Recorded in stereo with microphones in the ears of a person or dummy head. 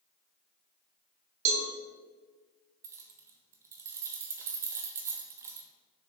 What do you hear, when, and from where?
1.4 s a cowbell: 45° right (ahead or behind), 1.3 m
2.8 s keys jangling: 15° right (ahead or behind), 0.7 m